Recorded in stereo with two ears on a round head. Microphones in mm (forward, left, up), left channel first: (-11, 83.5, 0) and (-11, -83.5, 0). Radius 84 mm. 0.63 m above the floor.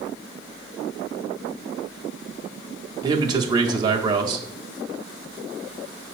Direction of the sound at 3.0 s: 20° right (ahead or behind).